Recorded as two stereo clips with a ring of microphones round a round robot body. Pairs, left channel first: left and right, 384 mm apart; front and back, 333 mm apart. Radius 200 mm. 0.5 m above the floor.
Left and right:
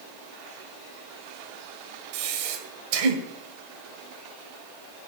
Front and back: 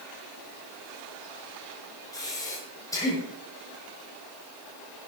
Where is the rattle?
I don't hear a rattle.